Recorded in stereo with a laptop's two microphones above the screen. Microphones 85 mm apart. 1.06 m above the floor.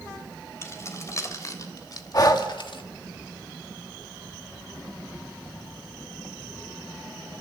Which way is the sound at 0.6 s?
35° left (ahead or behind).